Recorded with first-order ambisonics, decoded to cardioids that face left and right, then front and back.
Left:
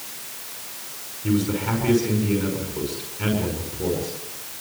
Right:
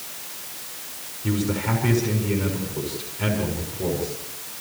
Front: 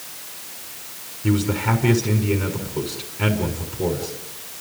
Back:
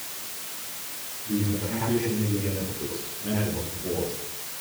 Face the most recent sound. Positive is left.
turn(degrees=0)